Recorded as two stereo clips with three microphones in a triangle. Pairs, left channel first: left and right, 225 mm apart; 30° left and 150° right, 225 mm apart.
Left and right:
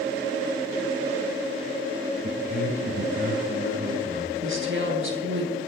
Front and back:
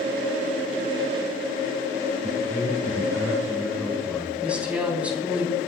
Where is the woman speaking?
65° right, 4 m.